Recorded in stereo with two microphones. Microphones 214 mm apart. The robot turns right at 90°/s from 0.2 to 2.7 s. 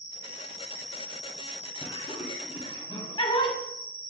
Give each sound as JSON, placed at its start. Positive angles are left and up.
{"t": 0.0, "sound": "an insect", "azimuth_deg": -20, "distance_m": 3.5}
{"t": 1.8, "sound": "laughter", "side_deg": 20, "distance_m": 1.7}